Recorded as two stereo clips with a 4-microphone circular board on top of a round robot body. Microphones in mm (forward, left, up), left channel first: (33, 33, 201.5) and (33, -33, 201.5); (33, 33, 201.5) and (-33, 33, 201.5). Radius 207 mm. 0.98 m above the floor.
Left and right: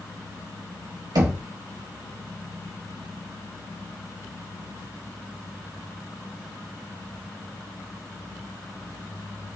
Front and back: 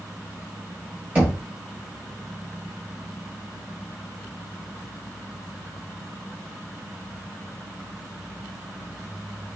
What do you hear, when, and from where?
1.1 s knocking: 110° right, 0.6 m